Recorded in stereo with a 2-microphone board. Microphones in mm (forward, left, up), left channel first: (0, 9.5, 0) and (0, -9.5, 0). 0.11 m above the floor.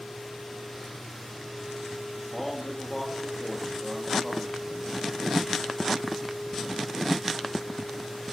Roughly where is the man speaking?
Centre.